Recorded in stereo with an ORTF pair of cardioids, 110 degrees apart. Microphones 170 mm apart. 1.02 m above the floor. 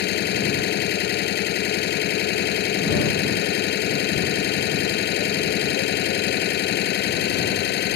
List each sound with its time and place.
0.0 s an engine running: 70° left